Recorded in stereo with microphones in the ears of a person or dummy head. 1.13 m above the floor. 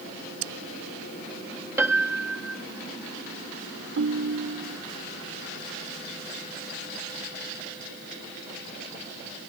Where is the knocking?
No knocking in this recording.